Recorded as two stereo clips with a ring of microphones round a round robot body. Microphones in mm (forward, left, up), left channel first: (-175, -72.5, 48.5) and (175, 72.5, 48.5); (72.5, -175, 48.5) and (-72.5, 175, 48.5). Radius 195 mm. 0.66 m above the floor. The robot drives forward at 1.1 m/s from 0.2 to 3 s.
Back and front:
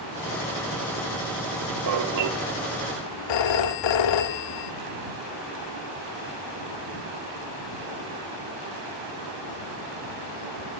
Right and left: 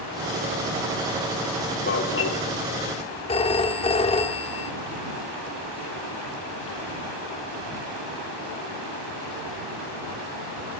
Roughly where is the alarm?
Ahead.